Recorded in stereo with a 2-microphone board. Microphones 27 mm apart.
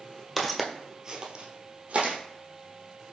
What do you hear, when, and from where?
0.4 s footsteps: 5° left (ahead or behind), 0.9 m; by 2.1 s 55° right (ahead or behind), 1.3 m